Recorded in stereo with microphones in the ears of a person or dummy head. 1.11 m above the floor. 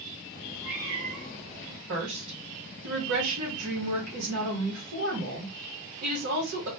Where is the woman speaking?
65° right (ahead or behind), 1.3 m.